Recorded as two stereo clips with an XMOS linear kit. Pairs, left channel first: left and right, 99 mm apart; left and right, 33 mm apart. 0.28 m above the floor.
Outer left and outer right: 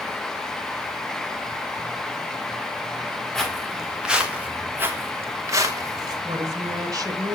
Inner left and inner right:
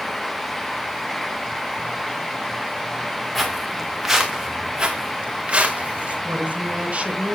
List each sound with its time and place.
3.4 s footsteps: 5° left (ahead or behind), 4 m; by 6.2 s 40° right (ahead or behind), 5 m
6.2 s a woman speaking: 35° right (ahead or behind), 3 m